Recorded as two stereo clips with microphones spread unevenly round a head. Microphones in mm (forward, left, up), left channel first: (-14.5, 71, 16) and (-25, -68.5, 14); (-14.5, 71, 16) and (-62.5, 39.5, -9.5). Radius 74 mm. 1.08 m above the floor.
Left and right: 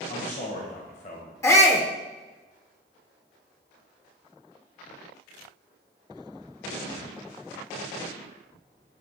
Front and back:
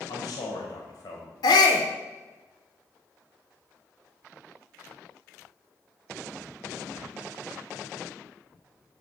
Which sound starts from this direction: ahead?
A shout, at 1.4 s.